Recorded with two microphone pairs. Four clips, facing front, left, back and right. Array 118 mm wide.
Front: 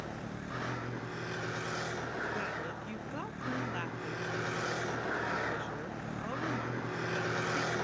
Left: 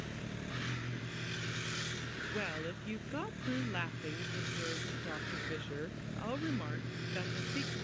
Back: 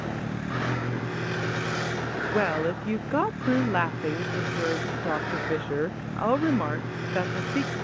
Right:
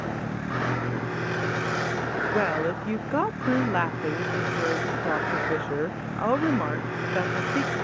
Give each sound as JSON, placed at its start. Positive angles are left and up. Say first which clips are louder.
{"t": 0.0, "sound": "a vehicle", "louder": "right 13 dB, back 9 dB", "azimuth_deg": -110}
{"t": 2.3, "sound": "a woman speaking", "louder": "right 15 dB, back 13 dB", "azimuth_deg": -140}